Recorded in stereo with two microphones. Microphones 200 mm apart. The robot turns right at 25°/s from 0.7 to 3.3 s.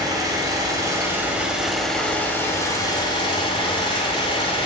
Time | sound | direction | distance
0.0 | an engine running | 25° right | 1.8 m